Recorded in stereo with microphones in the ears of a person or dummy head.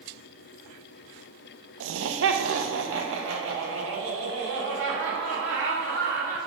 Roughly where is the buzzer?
I don't hear a buzzer.